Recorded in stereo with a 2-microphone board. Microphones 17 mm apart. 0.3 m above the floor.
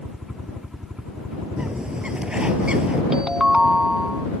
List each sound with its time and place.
0.0 s a helicopter: 60° right (ahead or behind)
1.6 s a bird: 70° right (ahead or behind)
3.1 s a ringtone: 40° right (ahead or behind)